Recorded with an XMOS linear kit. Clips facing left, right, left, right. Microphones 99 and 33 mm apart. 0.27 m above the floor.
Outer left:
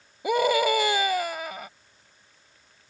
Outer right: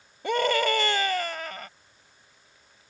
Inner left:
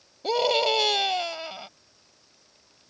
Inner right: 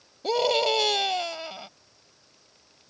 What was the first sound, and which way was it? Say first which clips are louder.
A scream: outer left 2 dB, even; 10° left (ahead or behind).